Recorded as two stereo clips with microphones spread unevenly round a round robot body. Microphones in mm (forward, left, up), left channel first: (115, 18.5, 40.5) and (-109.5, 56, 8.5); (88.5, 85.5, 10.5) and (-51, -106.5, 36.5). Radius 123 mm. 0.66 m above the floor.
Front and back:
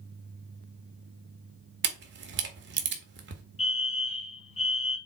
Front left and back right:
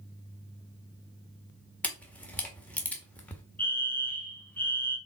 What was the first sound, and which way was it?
A camera shutter, 135° left.